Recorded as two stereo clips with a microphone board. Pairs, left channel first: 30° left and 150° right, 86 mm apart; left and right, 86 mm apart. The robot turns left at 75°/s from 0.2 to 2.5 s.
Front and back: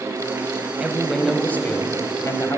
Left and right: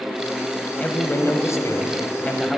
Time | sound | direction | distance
0.8 | a man speaking | 145° left | 1.5 m